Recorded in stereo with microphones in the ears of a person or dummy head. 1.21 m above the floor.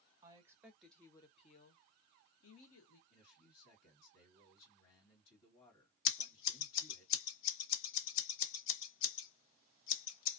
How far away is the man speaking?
About 1.5 m.